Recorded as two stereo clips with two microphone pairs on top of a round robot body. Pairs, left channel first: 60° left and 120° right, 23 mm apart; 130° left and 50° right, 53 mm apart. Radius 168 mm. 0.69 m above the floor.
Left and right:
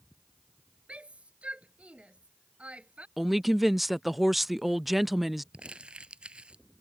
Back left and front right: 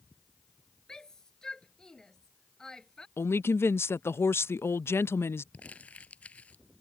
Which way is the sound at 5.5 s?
165° right.